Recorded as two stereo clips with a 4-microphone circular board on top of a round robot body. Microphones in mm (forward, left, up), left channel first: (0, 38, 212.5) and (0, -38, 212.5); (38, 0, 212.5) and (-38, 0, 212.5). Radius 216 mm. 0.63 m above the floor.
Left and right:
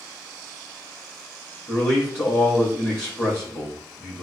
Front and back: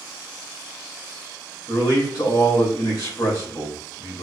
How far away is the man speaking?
About 2 m.